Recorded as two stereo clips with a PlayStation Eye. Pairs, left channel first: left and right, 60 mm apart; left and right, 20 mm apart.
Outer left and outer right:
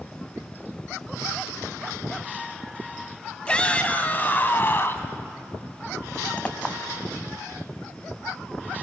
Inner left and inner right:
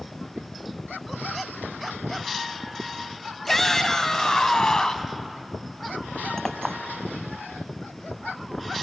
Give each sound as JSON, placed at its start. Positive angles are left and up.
{"t": 3.5, "sound": "a shout", "side_deg": 15, "distance_m": 1.4}
{"t": 6.4, "sound": "a clink", "side_deg": 25, "distance_m": 0.8}